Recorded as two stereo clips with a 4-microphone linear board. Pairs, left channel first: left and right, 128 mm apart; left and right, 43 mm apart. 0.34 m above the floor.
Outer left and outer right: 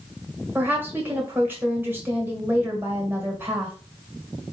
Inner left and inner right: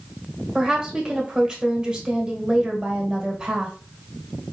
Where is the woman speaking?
15° right (ahead or behind), 1.5 m.